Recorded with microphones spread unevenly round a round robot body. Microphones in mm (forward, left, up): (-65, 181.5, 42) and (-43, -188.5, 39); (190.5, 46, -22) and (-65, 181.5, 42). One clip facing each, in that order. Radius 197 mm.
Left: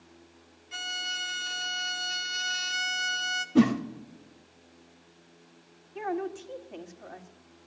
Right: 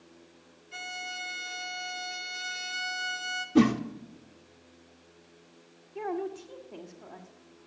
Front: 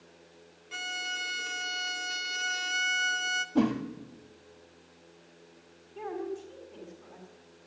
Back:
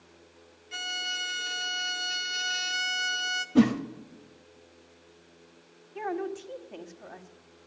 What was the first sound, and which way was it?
A violin, 50° left.